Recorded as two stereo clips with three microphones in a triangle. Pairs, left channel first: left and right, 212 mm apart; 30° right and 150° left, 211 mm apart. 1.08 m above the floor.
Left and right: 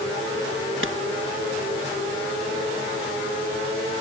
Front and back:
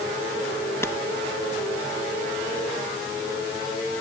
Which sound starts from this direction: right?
A clap, at 0.8 s.